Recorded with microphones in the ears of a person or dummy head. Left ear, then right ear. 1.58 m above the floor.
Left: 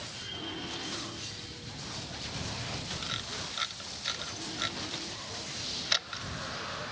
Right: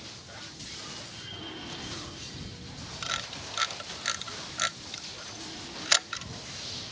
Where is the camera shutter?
35° right (ahead or behind).